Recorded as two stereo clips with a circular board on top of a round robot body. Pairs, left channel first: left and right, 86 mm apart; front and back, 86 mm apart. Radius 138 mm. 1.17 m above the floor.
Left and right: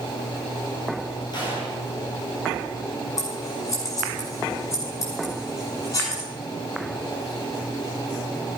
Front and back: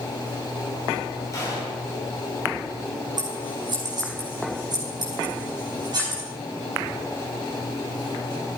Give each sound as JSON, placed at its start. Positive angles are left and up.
{"t": 1.3, "sound": "a gunshot", "azimuth_deg": 55, "distance_m": 4.5}
{"t": 3.2, "sound": "scissors", "azimuth_deg": 140, "distance_m": 6.0}